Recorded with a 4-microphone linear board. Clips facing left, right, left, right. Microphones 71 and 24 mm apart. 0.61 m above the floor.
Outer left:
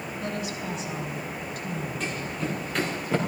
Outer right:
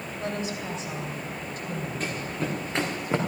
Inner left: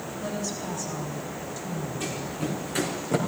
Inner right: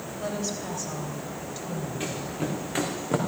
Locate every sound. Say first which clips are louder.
0.2 s a woman speaking: outer right 2 dB, inner right 1 dB; 35° right (ahead or behind), 3 m
2.0 s running footsteps: outer right 1 dB, inner right 1 dB; 45° right (ahead or behind), 3 m; by 3.2 s 20° right (ahead or behind), 3 m